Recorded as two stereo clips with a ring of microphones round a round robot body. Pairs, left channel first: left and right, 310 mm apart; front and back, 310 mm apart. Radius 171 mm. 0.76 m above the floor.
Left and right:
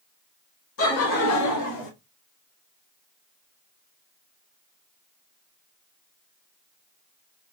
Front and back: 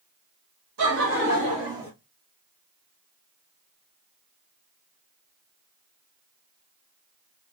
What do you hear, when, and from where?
0.8 s laughter: 135° left, 1.8 m; by 1.9 s 95° left, 1.3 m